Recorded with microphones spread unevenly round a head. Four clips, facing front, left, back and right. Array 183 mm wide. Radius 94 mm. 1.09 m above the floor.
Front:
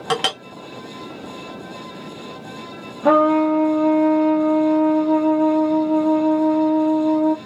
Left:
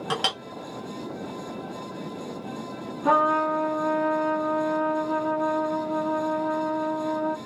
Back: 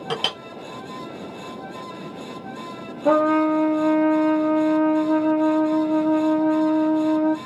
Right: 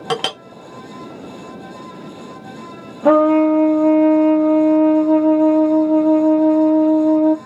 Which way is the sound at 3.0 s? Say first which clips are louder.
Right 10 dB, front 3 dB; 65° right.